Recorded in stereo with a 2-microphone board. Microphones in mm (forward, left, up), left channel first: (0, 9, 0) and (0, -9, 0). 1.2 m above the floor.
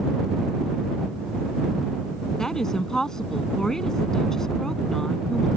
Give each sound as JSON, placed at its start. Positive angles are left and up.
{"t": 2.4, "sound": "a woman speaking", "side_deg": 35}